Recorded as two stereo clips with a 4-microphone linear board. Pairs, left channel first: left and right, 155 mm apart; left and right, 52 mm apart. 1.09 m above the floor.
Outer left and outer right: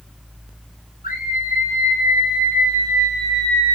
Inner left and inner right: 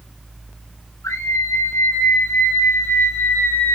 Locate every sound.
1.0 s a scream: 85° left, 4 m; by 3.8 s 45° left (ahead or behind), 3.5 m